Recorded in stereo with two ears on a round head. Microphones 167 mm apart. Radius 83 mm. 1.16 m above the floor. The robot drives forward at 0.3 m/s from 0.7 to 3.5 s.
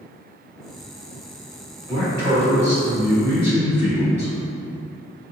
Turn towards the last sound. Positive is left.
turn(degrees=-15)  # may be behind; listen again after turning